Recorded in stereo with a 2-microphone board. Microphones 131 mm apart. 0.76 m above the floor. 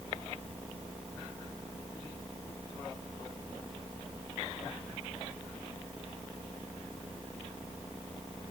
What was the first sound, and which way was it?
Only background noise.